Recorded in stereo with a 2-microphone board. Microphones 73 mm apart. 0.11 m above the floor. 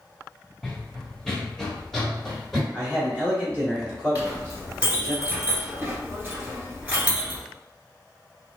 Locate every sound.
0.6 s running footsteps: 5° left (ahead or behind), 0.6 m
2.7 s a man speaking: 15° left (ahead or behind), 1.4 m
4.2 s a clink: 20° right (ahead or behind), 1.3 m